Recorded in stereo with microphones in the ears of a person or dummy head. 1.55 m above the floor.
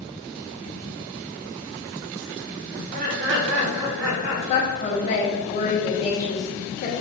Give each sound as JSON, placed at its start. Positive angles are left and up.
{"t": 2.7, "sound": "laughter", "side_deg": -35, "distance_m": 0.8}
{"t": 4.5, "sound": "a woman speaking", "side_deg": 30, "distance_m": 0.6}